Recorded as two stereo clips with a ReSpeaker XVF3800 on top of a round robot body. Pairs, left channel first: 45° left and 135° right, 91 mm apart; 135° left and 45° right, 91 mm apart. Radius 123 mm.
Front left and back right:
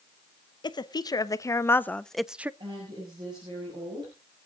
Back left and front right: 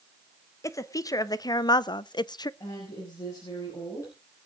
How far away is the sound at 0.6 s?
About 1.3 m.